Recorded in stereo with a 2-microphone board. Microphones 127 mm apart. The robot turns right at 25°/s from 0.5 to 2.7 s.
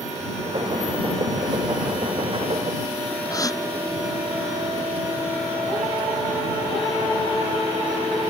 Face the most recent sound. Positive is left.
turn(degrees=25)  # may be behind; listen again after turning